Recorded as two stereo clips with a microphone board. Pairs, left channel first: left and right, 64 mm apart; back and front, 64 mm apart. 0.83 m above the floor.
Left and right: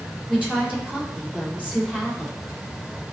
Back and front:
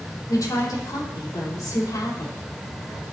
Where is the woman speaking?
160° right, 2.5 m.